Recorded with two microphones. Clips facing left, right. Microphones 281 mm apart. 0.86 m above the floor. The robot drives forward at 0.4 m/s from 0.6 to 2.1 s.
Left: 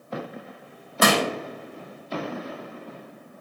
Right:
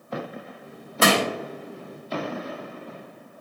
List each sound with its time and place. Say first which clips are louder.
1.0 s crushing: even; 30° right (ahead or behind), 1.6 m